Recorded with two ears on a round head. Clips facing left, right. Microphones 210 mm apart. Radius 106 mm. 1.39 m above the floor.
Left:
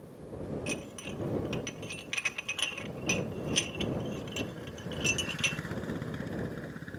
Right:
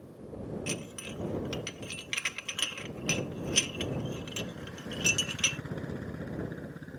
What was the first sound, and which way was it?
Dishes clattering, 25° right (ahead or behind).